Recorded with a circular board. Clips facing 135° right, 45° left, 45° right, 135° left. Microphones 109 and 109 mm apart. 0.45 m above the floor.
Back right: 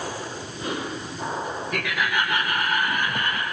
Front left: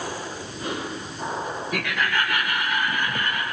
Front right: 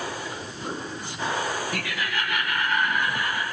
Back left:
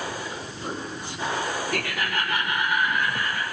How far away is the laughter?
About 1.4 m.